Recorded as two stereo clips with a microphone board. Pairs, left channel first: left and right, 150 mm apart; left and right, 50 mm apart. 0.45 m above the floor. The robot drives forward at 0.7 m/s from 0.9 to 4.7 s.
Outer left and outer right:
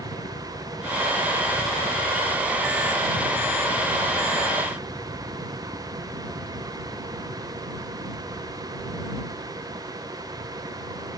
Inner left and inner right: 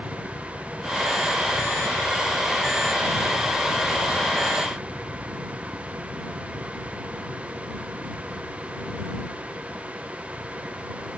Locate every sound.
0.0 s a helicopter: 55° left (ahead or behind); by 11.2 s 45° right (ahead or behind)